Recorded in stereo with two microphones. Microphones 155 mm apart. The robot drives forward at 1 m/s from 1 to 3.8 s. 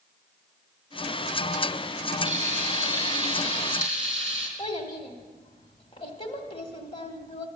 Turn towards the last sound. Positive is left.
turn(degrees=35)  # may be behind; listen again after turning